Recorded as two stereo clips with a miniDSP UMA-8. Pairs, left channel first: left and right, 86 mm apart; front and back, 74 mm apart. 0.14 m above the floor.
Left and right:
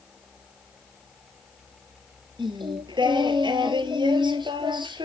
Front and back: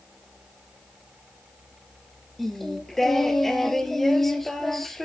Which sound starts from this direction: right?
Singing, at 2.4 s.